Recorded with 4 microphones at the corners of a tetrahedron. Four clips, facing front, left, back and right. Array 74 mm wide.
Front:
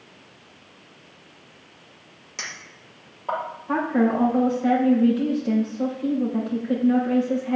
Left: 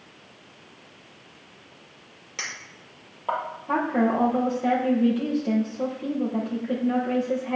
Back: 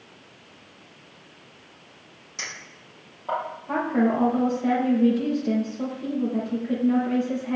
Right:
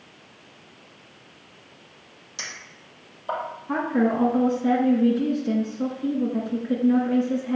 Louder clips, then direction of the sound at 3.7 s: Even, front 1 dB; 105° left.